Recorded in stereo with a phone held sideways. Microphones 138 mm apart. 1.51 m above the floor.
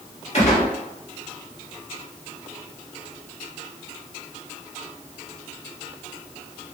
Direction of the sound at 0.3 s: 50° left (ahead or behind).